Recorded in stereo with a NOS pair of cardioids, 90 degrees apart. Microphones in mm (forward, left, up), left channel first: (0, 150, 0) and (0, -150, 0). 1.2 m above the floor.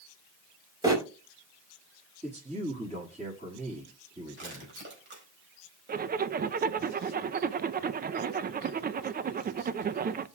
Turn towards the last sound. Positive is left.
turn(degrees=-35)